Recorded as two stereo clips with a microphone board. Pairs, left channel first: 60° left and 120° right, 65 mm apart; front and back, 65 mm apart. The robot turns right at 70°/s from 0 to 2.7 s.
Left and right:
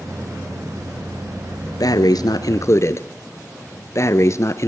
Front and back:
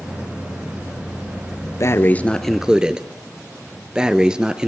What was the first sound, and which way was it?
Breathing, 40° left.